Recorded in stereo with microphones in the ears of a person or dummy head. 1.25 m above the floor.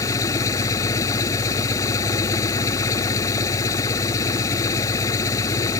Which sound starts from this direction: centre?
An engine running, at 0.0 s.